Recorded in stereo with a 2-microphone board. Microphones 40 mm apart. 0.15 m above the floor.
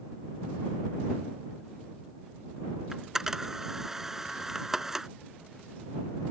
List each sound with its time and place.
2.9 s a camera shutter: 10° right (ahead or behind)